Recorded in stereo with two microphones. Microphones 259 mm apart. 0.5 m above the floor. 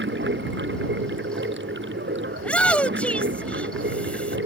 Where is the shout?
5° left (ahead or behind).